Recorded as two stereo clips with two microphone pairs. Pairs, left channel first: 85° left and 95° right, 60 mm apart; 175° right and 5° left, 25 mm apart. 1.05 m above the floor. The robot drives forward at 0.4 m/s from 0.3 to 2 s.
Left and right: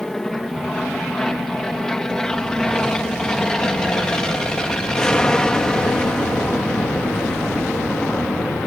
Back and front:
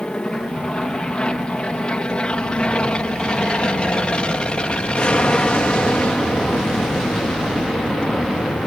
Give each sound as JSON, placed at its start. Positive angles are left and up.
{"t": 0.0, "sound": "an aircraft", "azimuth_deg": 170}